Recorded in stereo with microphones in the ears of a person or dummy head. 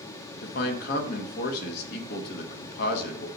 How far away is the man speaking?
About 1.3 m.